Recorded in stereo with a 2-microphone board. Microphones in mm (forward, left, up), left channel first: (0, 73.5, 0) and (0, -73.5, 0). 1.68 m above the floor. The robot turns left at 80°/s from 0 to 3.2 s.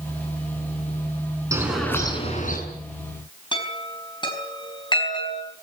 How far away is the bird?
About 7 m.